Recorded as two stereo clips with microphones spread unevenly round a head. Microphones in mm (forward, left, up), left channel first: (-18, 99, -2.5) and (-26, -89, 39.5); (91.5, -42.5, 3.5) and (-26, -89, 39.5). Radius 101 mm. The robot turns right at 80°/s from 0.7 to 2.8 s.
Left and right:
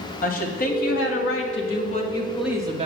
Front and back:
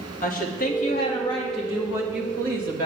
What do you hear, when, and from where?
0.2 s a woman speaking: 40° left, 1.9 m; by 2.9 s 155° right, 1.9 m